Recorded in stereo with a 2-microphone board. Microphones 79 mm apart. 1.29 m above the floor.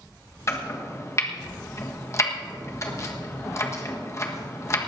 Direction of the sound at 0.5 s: 35° left (ahead or behind).